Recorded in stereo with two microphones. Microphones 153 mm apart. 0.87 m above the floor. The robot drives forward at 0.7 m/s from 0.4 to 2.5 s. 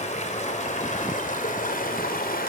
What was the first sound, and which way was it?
Running water, 50° left (ahead or behind).